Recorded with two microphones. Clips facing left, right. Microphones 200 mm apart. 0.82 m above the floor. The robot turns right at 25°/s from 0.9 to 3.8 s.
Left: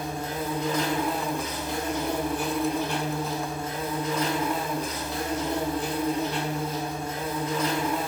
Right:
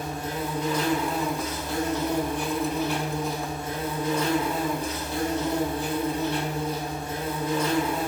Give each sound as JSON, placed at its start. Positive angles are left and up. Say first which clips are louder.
{"t": 0.0, "sound": "an insect", "louder": "even", "azimuth_deg": 140, "distance_m": 1.2}